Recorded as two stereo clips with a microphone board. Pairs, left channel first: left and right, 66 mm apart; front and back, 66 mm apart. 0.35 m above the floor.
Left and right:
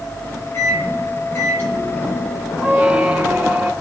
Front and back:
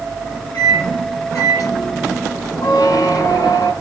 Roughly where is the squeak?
Ahead.